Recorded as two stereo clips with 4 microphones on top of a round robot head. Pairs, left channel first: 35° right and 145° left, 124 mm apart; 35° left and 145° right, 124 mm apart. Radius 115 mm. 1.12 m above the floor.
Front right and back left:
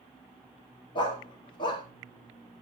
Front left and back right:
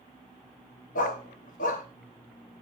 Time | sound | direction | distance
0.9 | a dog barking | 15° left | 1.0 m